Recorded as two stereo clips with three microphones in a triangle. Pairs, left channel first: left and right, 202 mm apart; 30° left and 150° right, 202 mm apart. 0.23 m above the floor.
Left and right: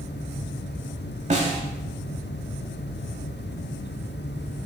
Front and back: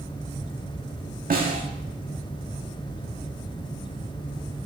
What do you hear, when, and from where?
1.3 s a snare drum: 130° right, 0.8 m